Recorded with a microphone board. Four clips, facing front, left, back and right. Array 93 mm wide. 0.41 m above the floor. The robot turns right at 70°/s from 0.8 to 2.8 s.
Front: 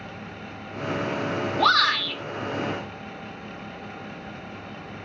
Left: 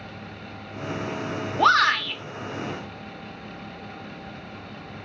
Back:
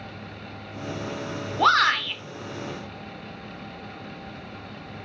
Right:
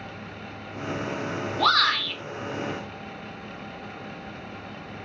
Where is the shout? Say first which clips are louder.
Left 4 dB, back 2 dB; 120° left, 1.1 m; by 2.2 s 160° left, 1.1 m.